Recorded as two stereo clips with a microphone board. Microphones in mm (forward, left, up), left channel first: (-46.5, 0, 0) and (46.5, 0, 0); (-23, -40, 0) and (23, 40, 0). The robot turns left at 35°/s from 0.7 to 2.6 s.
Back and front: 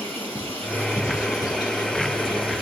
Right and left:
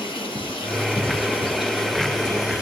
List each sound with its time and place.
0.0 s running water: 110° right, 6.5 m; by 2.6 s 175° right, 6.5 m